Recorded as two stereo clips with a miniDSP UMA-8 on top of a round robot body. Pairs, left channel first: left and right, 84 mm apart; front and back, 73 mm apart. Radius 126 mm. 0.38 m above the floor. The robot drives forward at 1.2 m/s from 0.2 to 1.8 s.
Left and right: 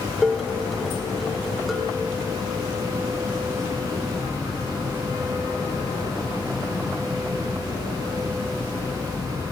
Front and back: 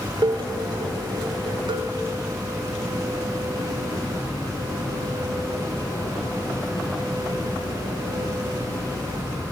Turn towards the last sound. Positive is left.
turn(degrees=180)